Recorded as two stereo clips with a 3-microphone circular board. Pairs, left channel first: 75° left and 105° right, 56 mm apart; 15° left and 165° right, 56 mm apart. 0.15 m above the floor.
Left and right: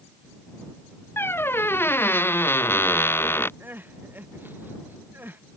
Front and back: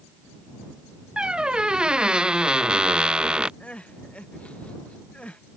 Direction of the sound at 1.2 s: 120° left.